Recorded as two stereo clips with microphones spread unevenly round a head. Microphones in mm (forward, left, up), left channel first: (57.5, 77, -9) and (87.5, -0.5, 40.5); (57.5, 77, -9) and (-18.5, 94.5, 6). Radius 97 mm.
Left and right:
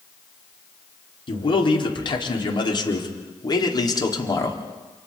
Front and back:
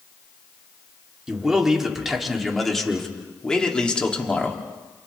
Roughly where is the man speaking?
Left.